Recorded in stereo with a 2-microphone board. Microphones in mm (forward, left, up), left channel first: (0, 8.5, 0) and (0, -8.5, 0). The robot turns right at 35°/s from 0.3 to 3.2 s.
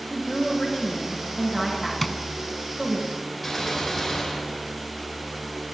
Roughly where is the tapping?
Centre.